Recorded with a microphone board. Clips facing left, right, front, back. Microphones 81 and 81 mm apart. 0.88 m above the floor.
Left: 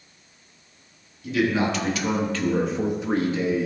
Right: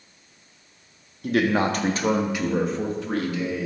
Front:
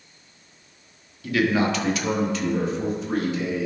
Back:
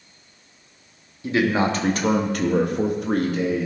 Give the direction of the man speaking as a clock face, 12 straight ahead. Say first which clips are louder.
Right 1 dB, back 1 dB; 4 o'clock.